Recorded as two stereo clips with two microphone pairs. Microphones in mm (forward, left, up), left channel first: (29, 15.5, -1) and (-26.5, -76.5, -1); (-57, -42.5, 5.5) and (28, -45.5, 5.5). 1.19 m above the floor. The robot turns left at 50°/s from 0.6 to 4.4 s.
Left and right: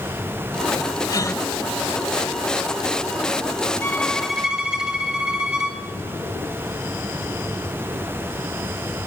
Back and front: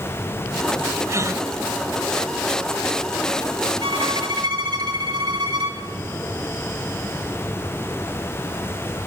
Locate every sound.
1.1 s a gasp: 25° left, 1.2 m; by 1.4 s 10° left, 1.2 m
3.8 s a violin: 10° right, 2.5 m; by 5.8 s 40° right, 2.5 m